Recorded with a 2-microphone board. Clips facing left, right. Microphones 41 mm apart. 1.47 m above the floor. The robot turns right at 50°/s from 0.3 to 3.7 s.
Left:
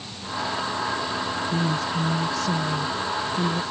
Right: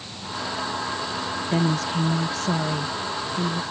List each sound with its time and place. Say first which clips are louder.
1.5 s a woman speaking: right 4 dB; 95° right; by 3.6 s 15° left